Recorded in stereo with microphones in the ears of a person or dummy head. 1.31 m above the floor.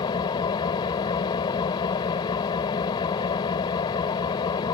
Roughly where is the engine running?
Left.